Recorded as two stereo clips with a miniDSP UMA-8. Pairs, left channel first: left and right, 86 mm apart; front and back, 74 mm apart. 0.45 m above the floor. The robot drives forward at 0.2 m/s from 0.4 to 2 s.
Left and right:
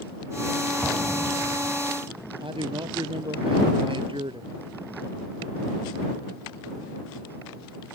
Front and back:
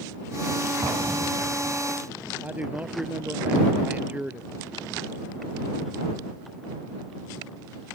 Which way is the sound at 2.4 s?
110° right.